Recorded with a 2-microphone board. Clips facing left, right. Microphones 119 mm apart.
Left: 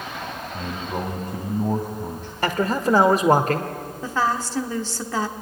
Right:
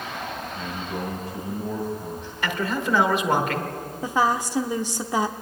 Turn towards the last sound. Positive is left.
turn(degrees=-15)  # may be behind; listen again after turning